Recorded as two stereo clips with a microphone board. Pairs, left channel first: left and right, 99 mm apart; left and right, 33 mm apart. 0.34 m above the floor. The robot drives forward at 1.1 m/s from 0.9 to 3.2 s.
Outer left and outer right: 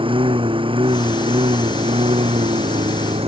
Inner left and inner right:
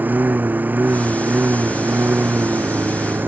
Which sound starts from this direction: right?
A lawn mower, at 0.0 s.